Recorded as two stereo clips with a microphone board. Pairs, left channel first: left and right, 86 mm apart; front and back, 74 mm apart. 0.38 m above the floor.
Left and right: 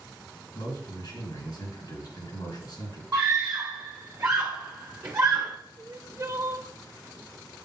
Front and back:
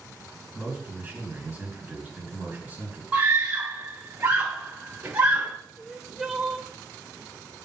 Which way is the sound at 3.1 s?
140° right.